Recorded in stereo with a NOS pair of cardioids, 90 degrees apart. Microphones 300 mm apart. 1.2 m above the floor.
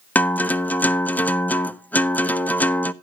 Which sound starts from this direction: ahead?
A guitar, at 0.1 s.